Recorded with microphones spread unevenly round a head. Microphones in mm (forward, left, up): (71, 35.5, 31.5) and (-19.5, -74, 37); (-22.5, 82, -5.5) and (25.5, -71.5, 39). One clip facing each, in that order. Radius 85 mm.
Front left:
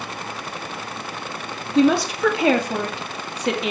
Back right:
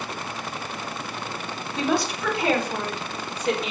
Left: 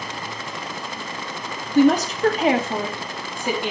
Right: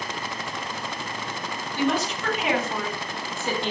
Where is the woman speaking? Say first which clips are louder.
Front left 8 dB, left 9 dB; 65° left, 2.5 m; by 3.7 s 30° left, 2.5 m.